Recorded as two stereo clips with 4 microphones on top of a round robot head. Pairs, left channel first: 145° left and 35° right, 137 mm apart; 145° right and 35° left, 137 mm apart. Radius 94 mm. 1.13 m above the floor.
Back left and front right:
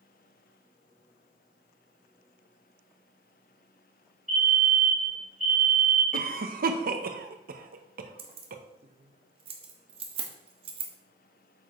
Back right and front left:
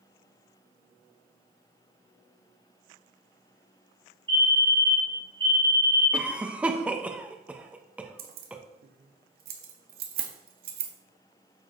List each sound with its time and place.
4.3 s a fire alarm: 20° right, 3.5 m
6.1 s a cough: 45° right, 1.0 m
8.2 s keys jangling: 15° left, 1.2 m